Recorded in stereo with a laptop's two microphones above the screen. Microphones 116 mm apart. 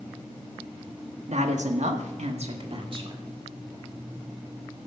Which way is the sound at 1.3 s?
70° right (ahead or behind).